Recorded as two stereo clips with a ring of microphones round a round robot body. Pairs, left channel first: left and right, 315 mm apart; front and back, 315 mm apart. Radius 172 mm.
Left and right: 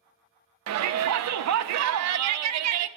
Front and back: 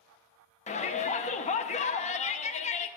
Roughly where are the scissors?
I don't hear scissors.